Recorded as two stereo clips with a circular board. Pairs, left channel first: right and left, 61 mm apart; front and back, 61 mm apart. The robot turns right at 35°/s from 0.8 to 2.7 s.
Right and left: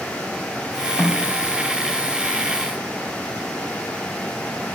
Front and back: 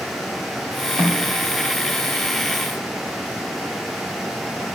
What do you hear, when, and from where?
1.0 s a snare drum: 145° right, 1.8 m; by 1.3 s 135° right, 1.8 m